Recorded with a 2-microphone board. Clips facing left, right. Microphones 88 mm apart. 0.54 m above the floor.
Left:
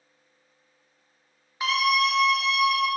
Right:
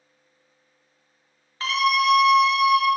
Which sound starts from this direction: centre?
A scream, at 1.6 s.